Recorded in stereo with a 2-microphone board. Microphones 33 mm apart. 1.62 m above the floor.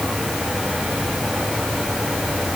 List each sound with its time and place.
Only background noise.